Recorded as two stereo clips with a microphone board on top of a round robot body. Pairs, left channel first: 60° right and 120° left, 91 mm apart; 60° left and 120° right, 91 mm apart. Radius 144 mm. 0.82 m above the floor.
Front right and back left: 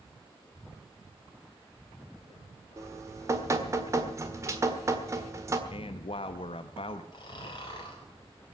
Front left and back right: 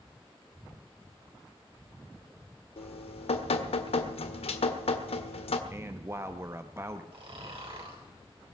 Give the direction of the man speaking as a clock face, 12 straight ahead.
2 o'clock.